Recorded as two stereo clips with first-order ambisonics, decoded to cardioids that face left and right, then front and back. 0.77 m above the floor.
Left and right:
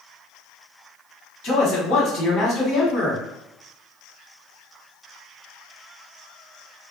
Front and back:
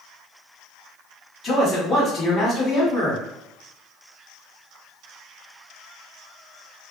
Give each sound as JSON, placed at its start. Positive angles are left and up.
{"t": 1.4, "sound": "a man speaking", "azimuth_deg": 70, "distance_m": 1.6}